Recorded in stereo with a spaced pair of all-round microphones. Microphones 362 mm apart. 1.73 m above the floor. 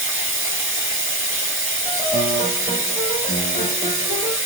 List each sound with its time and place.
0.0 s running water: 35° right (ahead or behind), 1.3 m
1.9 s a piano: 50° left (ahead or behind), 1.9 m